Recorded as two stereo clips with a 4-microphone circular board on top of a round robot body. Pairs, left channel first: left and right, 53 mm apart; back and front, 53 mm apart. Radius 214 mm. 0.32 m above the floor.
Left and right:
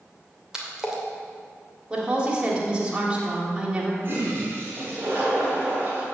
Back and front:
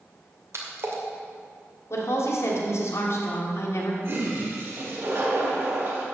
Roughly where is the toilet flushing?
Ahead right.